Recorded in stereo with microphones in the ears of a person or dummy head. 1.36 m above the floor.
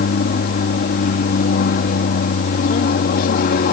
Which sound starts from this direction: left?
An aircraft, at 0.0 s.